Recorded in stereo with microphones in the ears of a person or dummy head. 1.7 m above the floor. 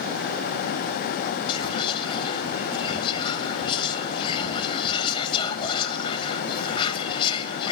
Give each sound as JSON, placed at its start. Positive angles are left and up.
{"t": 1.5, "sound": "whispering", "side_deg": 25, "distance_m": 3.0}